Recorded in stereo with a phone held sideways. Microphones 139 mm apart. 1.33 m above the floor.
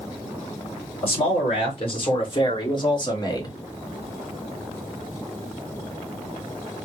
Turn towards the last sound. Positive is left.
turn(degrees=25)  # may be behind; listen again after turning